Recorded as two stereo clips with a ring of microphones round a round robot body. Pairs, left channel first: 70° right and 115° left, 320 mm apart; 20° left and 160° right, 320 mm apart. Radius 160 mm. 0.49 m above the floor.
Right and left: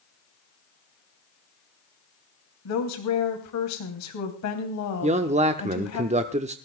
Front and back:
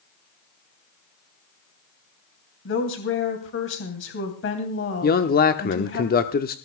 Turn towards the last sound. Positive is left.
turn(degrees=60)